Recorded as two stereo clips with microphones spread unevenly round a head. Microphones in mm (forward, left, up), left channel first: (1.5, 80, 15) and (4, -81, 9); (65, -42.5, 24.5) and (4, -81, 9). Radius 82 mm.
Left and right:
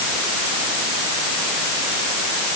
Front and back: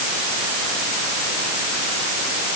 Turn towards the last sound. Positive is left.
No sound to turn to.